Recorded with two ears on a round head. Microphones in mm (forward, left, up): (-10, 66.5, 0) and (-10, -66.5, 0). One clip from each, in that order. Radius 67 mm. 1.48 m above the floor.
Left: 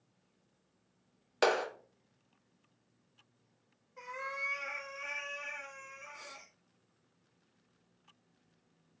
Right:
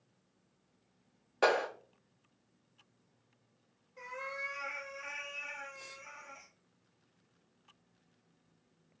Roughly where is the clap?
Left.